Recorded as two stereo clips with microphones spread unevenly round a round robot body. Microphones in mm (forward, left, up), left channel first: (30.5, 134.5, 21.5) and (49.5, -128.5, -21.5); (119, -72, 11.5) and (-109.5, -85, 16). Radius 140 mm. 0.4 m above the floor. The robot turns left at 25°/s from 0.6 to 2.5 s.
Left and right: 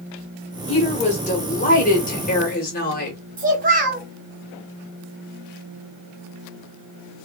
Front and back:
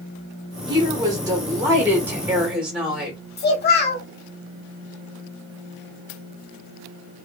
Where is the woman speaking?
150° left, 1.4 m; by 3.2 s 100° left, 1.4 m.